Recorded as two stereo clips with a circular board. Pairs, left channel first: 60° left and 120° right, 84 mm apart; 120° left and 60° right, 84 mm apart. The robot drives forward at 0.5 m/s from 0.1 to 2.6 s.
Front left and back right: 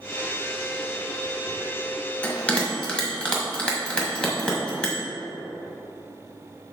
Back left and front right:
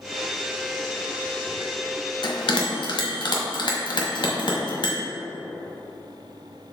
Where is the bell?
130° left, 1.3 m; by 5.0 s 140° left, 1.5 m.